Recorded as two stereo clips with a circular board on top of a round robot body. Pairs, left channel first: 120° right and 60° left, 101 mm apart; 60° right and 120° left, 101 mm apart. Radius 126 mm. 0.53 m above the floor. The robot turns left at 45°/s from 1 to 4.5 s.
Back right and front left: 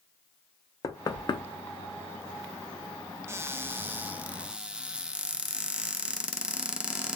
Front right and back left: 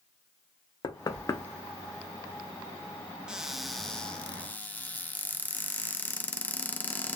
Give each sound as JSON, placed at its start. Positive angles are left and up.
{"t": 0.8, "sound": "knocking", "azimuth_deg": -90, "distance_m": 0.6}
{"t": 3.3, "sound": "a cupboard door", "azimuth_deg": 45, "distance_m": 0.6}